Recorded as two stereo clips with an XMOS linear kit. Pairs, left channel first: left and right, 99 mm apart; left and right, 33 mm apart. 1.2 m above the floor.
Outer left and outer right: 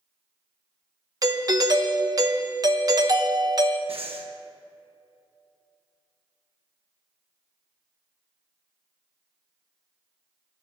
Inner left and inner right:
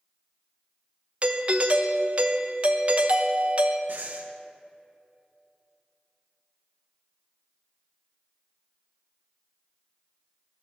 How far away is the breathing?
About 1.5 m.